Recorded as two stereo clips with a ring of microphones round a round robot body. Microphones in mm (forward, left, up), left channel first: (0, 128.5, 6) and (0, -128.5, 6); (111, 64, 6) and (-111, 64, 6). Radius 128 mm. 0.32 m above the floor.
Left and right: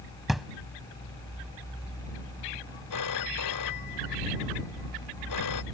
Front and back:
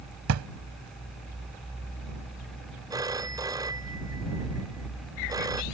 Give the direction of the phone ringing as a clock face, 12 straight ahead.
8 o'clock.